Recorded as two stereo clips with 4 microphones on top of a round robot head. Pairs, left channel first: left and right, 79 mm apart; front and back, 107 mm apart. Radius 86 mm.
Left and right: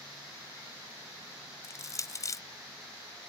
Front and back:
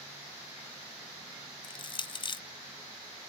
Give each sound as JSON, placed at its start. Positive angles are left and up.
{"t": 1.6, "sound": "crushing", "azimuth_deg": 45}